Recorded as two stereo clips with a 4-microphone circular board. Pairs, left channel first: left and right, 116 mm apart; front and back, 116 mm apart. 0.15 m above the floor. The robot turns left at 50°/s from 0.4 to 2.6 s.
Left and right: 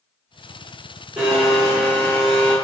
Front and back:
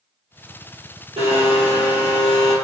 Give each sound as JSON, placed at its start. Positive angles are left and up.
{"t": 1.2, "sound": "a blender", "azimuth_deg": -160, "distance_m": 1.8}